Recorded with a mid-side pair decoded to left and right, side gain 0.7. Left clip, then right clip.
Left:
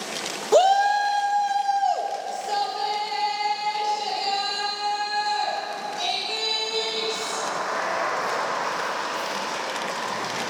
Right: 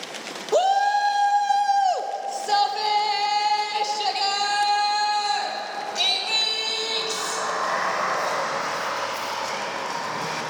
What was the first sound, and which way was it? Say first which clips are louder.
A shout: left 2 dB; 15° left.